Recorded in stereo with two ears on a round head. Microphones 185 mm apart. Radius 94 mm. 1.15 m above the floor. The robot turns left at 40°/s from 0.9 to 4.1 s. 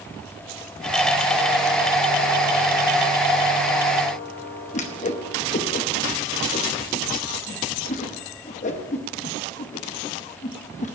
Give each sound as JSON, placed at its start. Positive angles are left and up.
{"t": 4.7, "sound": "a whoosh", "side_deg": 35, "distance_m": 0.9}